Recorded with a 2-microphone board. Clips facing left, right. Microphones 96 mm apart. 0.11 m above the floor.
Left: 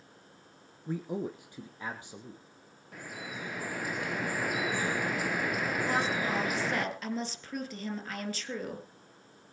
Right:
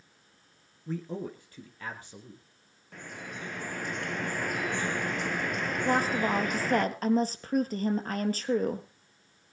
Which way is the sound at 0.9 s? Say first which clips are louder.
Left 1 dB; 10° left (ahead or behind).